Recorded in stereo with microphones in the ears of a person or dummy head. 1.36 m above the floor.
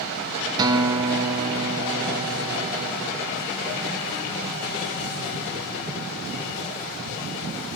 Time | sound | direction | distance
0.6 | a guitar | 25° right (ahead or behind) | 0.6 m